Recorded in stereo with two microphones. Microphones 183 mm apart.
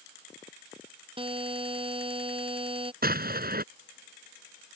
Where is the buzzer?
30° right (ahead or behind).